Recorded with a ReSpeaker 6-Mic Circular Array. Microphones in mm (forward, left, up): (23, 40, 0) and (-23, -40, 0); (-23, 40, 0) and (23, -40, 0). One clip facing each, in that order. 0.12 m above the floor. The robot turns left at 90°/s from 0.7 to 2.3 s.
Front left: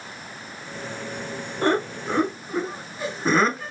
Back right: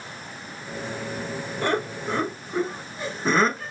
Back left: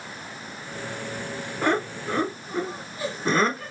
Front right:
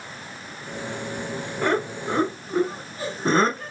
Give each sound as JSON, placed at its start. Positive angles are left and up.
{"t": 1.6, "sound": "laughter", "azimuth_deg": 35, "distance_m": 1.5}